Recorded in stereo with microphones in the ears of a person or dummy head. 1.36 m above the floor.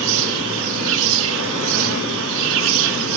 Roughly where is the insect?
Right.